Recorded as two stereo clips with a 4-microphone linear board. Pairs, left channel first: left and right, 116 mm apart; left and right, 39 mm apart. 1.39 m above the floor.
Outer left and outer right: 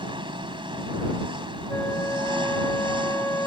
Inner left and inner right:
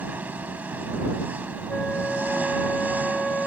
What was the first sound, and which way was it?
An engine running, 45° right (ahead or behind).